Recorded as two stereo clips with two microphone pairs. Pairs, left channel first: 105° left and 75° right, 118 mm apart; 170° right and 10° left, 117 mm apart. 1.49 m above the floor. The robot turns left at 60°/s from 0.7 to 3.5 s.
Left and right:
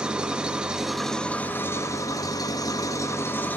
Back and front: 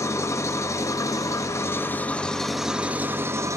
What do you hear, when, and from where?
0.0 s an engine running: 145° right, 0.9 m; by 3.6 s 45° left, 0.9 m